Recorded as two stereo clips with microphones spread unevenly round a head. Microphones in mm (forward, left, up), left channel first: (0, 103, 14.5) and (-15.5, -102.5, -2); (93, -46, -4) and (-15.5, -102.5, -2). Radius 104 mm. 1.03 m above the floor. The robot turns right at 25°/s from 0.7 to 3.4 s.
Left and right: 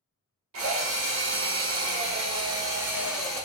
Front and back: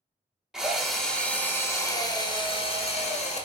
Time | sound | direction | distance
0.5 | a drill | 65° right | 1.1 m